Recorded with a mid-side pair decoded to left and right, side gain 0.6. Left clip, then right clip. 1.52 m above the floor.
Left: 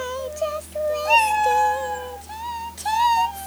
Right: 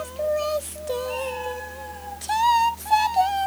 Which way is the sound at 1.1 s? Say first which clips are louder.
Left 12 dB; 65° left.